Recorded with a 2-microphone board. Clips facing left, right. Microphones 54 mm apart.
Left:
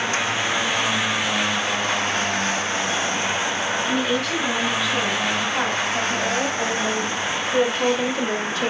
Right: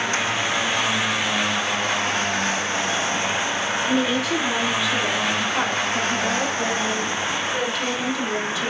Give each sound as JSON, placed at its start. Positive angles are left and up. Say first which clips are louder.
{"t": 3.9, "sound": "a woman speaking", "louder": "right 3 dB", "side_deg": -10, "distance_m": 4.5}